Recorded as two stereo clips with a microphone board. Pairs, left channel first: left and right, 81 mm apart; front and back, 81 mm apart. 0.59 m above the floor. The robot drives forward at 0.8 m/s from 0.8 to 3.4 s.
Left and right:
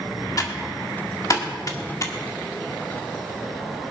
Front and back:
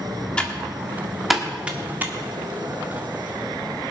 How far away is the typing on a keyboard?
About 1.6 m.